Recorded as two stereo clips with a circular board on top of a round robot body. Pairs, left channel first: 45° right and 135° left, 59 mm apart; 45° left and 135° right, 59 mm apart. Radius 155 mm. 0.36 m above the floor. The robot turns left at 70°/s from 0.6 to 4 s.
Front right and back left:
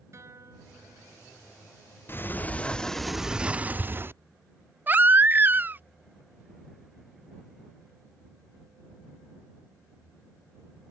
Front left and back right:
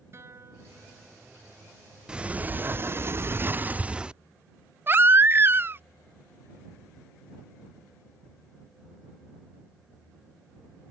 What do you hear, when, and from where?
0.1 s a guitar: straight behind; by 1.4 s 120° left
2.1 s a sliding door: 65° right; by 4.2 s 160° left
4.9 s a baby crying: 175° right